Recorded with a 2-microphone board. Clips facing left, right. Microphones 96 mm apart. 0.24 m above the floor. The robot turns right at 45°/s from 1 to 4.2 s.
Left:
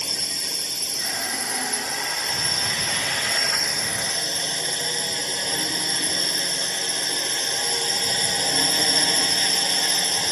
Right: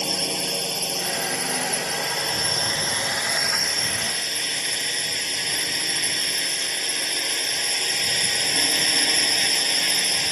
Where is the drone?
115° right; by 10.3 s 30° left.